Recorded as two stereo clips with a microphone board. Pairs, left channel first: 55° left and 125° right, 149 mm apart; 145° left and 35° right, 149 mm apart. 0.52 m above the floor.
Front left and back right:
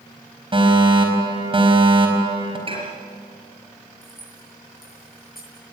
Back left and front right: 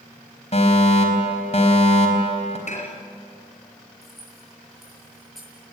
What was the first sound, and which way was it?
A fire alarm, 175° right.